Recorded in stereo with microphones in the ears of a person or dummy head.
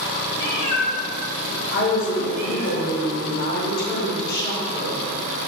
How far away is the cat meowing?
About 1.1 m.